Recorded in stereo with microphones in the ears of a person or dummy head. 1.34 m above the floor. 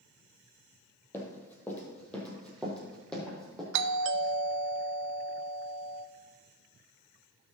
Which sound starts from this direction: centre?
Running footsteps, at 1.1 s.